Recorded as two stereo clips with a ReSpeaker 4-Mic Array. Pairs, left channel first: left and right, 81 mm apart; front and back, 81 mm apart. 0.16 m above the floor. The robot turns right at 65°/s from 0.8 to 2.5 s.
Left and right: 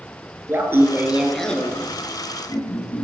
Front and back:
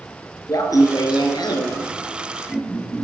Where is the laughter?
35° right, 2 m; by 3.0 s 75° left, 2 m.